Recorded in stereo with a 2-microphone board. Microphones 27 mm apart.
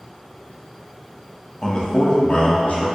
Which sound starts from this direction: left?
A man speaking, at 1.6 s.